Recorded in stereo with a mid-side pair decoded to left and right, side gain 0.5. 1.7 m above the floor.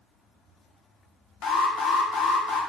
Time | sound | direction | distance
1.4 | an alarm | 65° left | 2 m